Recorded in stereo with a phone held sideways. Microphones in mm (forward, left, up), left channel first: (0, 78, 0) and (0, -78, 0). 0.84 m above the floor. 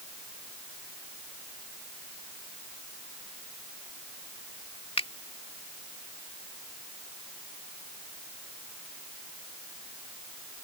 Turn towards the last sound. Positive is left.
turn(degrees=40)  # may be behind; listen again after turning